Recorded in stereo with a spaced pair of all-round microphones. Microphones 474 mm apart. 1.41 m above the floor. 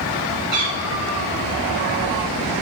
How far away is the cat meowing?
About 5 m.